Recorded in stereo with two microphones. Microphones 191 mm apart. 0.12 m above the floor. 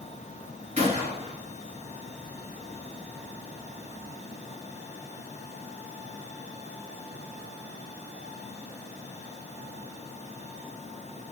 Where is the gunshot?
35° right (ahead or behind), 2 m.